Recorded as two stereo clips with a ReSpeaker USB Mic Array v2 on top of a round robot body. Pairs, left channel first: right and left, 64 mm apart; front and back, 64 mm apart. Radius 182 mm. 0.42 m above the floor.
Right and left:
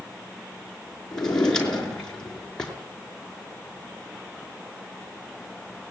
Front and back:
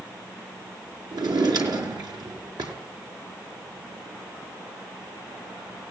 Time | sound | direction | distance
1.1 | a drawer | 170° right | 5 m